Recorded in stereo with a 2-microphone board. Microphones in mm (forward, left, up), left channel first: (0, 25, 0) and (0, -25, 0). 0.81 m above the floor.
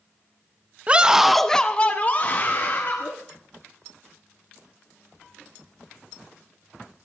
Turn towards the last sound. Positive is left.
turn(degrees=40)  # may be behind; listen again after turning